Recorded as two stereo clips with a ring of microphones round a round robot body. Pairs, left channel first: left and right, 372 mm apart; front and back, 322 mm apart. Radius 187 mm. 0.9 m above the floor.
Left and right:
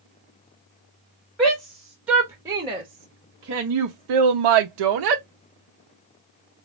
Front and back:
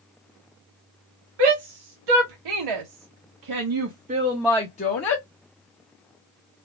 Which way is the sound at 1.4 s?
Straight behind.